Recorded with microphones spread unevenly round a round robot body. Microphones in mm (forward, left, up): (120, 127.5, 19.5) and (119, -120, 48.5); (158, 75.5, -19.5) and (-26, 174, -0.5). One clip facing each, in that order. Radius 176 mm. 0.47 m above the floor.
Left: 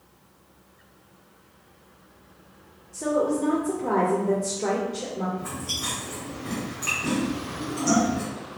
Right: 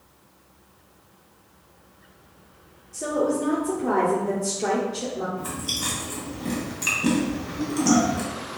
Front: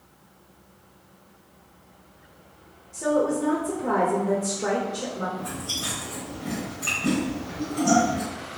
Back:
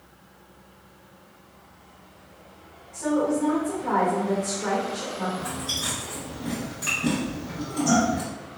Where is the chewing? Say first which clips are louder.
Right 2 dB, back 1 dB; 135° right, 0.9 m.